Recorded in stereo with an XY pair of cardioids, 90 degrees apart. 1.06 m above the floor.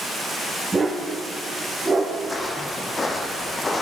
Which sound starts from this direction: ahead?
A dog barking, at 0.7 s.